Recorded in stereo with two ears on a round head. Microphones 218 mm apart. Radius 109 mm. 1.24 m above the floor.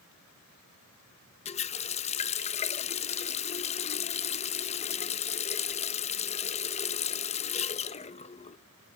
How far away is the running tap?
About 0.8 m.